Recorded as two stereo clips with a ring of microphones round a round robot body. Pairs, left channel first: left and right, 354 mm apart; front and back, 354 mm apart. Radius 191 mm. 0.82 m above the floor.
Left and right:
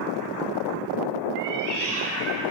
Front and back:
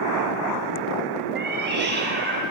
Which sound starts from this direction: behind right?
A cat meowing, at 1.4 s.